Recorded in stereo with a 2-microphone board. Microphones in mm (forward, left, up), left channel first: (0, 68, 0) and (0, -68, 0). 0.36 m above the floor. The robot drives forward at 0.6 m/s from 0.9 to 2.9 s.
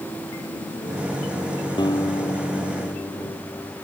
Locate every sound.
1.8 s a guitar: 30° left (ahead or behind)